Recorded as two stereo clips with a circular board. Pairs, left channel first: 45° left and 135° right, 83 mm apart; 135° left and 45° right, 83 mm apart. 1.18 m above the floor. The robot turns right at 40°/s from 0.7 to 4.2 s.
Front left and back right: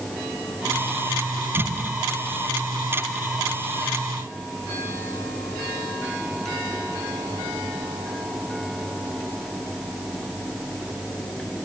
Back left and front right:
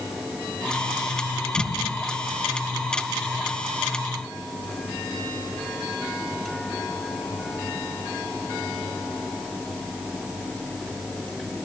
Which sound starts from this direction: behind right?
An explosion, at 1.6 s.